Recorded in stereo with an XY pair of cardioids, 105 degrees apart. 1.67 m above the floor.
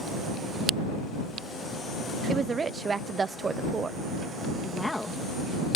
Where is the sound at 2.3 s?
30° right.